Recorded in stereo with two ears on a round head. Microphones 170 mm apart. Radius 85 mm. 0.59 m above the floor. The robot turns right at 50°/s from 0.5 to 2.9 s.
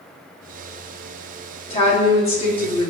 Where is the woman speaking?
75° left, 1.1 m; by 2.9 s 135° left, 1.1 m.